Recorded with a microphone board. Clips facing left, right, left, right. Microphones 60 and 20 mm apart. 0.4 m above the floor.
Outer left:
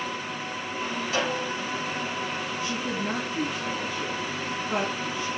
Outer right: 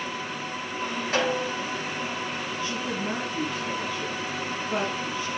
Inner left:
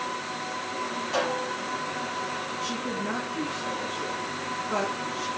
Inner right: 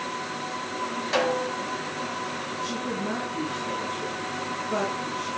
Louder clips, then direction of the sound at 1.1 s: Outer right 3 dB, inner right 3 dB; 45° right (ahead or behind).